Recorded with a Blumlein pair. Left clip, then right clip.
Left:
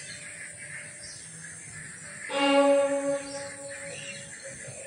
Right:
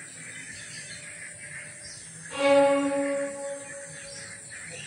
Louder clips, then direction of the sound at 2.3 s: Right 1 dB; 35° left.